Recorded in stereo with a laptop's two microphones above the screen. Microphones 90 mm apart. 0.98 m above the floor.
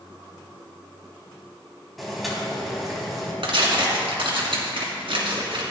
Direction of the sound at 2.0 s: Centre (ahead or behind).